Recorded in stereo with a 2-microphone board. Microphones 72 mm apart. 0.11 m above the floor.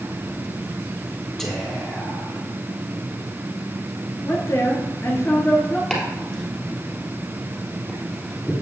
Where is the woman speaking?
40° left (ahead or behind), 2 m.